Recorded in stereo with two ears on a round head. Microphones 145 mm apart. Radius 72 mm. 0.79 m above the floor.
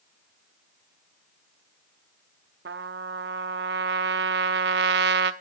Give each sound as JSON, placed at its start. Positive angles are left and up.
{"t": 2.6, "sound": "a trumpet", "side_deg": -75, "distance_m": 0.8}